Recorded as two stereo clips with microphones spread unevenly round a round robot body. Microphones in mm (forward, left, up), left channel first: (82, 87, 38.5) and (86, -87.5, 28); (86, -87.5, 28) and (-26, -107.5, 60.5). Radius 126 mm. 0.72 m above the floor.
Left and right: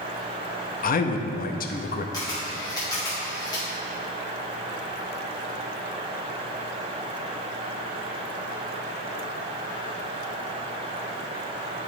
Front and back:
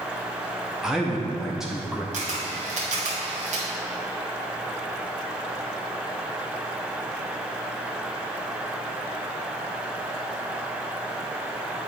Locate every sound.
0.8 s a man speaking: 85° left, 0.6 m
2.1 s a camera shutter: 160° left, 1.4 m